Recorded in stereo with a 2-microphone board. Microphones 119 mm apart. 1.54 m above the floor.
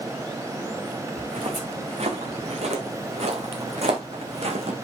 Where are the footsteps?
70° right (ahead or behind), 5 m; by 4.7 s 60° right (ahead or behind), 4 m.